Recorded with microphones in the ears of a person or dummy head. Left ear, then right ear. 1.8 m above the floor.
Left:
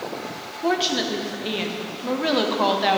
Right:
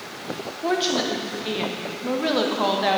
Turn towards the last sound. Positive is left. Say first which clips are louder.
# left 1 dB
turn(degrees=10)  # may be behind; listen again after turning